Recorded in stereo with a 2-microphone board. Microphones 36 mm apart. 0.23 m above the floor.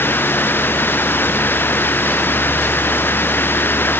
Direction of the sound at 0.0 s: 70° left (ahead or behind).